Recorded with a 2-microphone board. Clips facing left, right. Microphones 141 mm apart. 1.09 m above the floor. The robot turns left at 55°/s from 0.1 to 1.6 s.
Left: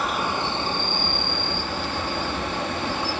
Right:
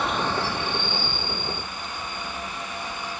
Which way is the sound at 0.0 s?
175° left.